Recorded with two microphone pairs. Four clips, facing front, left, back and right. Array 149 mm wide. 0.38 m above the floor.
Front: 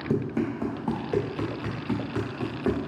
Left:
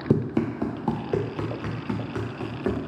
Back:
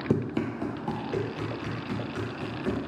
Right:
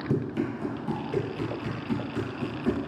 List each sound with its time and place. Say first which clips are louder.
0.1 s running footsteps: left 5 dB, front 1 dB; 115° left, 0.5 m; by 2.9 s 45° left, 1.6 m